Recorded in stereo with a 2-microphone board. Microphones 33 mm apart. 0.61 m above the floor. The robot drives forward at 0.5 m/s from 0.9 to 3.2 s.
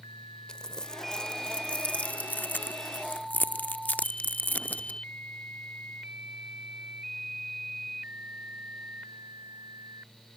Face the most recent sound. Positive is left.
turn(degrees=60)  # may be behind; listen again after turning